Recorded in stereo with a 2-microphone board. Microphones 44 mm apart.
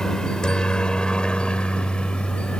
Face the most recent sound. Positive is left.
turn(degrees=25)  # may be behind; listen again after turning